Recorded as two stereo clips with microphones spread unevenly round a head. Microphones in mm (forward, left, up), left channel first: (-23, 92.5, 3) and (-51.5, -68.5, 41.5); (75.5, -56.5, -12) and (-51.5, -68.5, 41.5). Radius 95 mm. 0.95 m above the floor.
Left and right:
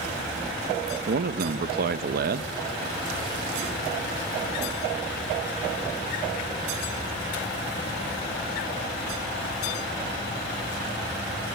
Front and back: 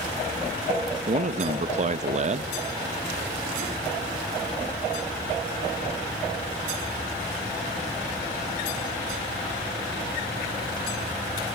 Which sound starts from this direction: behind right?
A man speaking, at 1.1 s.